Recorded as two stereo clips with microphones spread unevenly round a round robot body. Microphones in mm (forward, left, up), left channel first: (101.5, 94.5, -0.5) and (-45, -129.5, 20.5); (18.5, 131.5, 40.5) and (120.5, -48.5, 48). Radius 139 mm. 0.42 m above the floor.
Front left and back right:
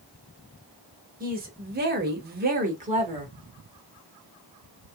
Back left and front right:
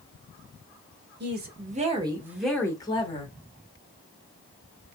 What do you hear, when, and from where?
1.2 s a woman speaking: 65° right, 1.1 m; by 3.3 s 165° left, 1.2 m